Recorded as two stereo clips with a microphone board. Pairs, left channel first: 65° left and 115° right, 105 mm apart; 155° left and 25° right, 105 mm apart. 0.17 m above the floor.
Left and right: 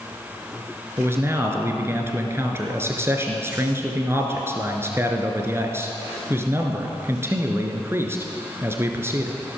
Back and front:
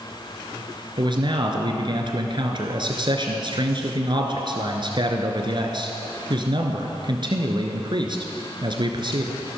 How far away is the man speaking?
About 1.9 m.